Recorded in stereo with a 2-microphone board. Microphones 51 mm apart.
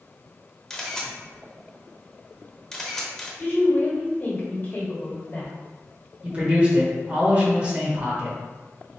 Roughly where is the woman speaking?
Left.